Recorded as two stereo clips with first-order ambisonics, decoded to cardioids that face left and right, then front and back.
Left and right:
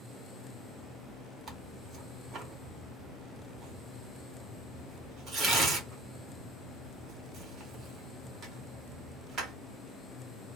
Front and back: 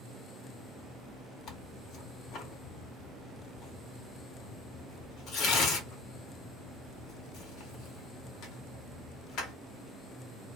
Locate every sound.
1.5 s tearing paper: 35° right, 0.9 m